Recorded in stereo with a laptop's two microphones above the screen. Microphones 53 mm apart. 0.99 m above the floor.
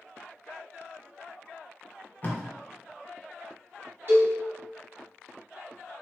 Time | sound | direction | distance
2.2 | tape being pulled | 30° left (ahead or behind) | 0.7 m
4.1 | a cowbell | 50° right (ahead or behind) | 1.5 m